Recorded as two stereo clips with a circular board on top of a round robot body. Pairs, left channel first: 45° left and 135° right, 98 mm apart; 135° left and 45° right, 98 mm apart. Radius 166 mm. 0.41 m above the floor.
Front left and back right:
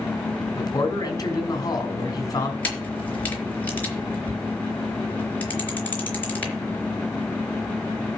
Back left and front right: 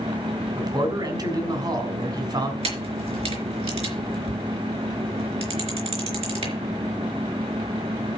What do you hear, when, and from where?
0.6 s a man speaking: 5° right, 3.5 m
2.6 s a camera shutter: 30° right, 4 m